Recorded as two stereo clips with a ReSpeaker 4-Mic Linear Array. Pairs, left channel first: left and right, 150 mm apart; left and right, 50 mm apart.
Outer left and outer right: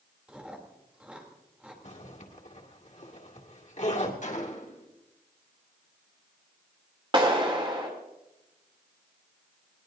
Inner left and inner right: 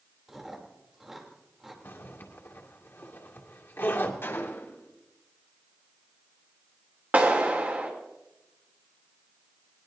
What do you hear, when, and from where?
0.3 s chewing: 5° right (ahead or behind), 3 m
1.8 s a zipper: 55° left (ahead or behind), 2 m
4.2 s a gunshot: 55° left (ahead or behind), 1.9 m
7.1 s a clap: 35° right (ahead or behind), 3 m